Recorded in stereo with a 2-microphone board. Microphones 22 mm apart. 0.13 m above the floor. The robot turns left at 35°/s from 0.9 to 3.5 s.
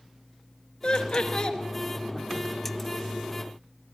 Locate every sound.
0.8 s laughter: 45° left (ahead or behind), 2 m; by 1.6 s 40° left (ahead or behind), 2 m